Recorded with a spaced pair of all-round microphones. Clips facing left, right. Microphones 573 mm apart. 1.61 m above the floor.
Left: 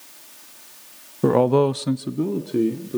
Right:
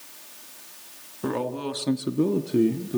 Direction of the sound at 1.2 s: 65° left (ahead or behind).